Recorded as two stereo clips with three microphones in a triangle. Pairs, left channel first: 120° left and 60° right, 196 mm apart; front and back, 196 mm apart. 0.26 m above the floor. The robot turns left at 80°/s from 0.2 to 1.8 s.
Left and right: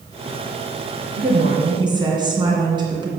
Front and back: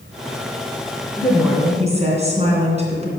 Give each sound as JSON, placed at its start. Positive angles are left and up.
{"t": 1.2, "sound": "a woman speaking", "azimuth_deg": -75, "distance_m": 2.0}